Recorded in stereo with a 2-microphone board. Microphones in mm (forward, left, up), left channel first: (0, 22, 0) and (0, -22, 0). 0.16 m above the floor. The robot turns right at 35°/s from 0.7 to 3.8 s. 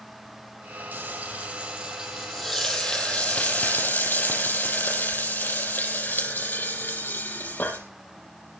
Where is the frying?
50° right, 6 m; by 7.8 s 55° left, 6 m.